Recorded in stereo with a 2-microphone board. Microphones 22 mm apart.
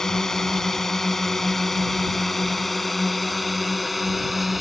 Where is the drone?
25° left (ahead or behind); by 4.6 s 5° right (ahead or behind).